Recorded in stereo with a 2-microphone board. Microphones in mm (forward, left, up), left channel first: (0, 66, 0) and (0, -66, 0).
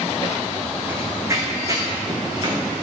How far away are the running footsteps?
About 1.6 m.